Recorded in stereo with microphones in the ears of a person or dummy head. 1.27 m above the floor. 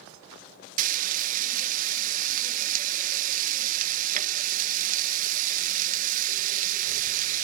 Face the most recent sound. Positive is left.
turn(degrees=-45)  # may be behind; listen again after turning